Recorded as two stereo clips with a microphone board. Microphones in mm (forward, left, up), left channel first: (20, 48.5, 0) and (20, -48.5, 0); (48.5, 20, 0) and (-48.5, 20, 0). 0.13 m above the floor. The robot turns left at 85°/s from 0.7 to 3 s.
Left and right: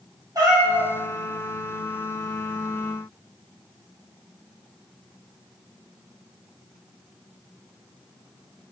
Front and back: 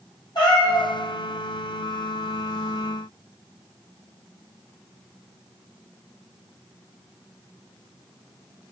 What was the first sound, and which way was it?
A cat meowing, 35° right.